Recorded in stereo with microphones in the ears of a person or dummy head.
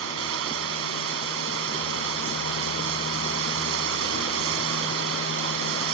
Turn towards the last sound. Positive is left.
turn(degrees=-85)